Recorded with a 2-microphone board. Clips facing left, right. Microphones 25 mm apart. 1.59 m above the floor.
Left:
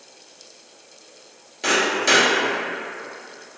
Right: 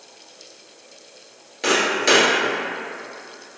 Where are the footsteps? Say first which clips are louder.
Right 1 dB; 15° right (ahead or behind), 1.7 m.